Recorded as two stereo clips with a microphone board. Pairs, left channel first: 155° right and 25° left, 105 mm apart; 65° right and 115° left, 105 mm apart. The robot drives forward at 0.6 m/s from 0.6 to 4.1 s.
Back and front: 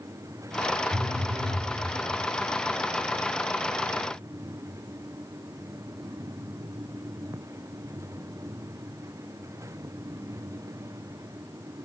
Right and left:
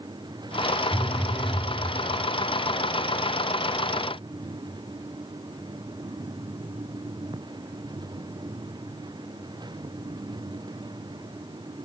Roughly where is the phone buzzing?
Ahead left.